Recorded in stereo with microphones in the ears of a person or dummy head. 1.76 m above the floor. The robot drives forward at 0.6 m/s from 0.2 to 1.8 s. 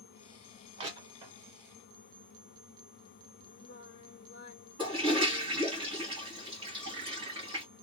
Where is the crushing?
35° right (ahead or behind), 1.1 m; by 1.4 s 30° right (ahead or behind), 1.4 m.